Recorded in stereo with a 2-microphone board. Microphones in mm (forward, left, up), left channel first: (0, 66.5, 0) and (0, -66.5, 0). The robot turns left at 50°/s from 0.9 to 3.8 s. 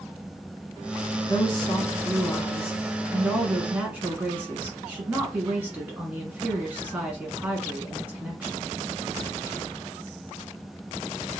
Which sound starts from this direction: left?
A woman speaking, at 1.3 s.